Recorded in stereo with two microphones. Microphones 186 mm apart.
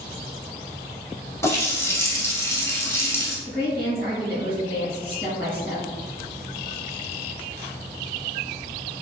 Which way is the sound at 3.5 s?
55° right (ahead or behind).